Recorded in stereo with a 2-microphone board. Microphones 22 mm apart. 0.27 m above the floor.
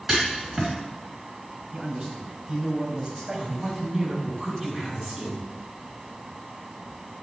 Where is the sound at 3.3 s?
15° right (ahead or behind), 2.5 m.